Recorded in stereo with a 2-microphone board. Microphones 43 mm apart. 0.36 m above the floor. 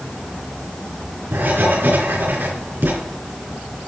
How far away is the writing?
About 4.5 m.